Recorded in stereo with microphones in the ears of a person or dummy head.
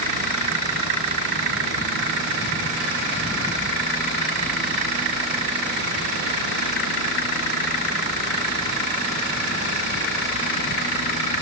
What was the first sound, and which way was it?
Only background noise.